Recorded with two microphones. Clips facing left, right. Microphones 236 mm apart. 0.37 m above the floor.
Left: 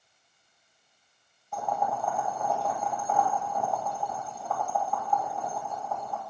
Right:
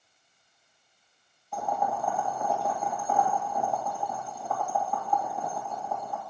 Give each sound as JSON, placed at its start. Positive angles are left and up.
{"t": 1.5, "sound": "boiling", "side_deg": 0, "distance_m": 1.7}